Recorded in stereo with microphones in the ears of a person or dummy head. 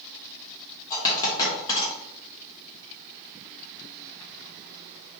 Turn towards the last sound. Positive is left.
turn(degrees=25)  # may be behind; listen again after turning